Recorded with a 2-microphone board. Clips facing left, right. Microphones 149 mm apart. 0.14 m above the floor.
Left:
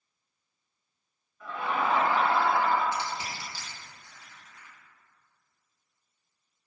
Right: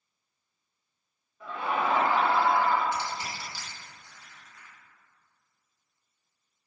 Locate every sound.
1.4 s laughter: 25° right (ahead or behind), 1.4 m; by 2.8 s 10° right (ahead or behind), 1.5 m
2.9 s crushing: 20° left (ahead or behind), 0.8 m